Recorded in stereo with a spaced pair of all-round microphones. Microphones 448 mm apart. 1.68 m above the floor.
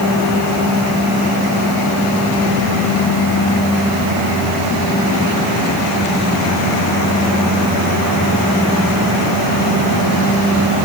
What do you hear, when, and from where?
Only background noise.